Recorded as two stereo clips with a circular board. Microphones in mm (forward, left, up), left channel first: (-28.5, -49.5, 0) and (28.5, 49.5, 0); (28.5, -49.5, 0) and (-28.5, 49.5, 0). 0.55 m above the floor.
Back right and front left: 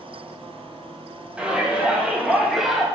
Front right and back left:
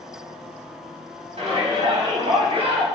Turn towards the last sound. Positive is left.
turn(degrees=150)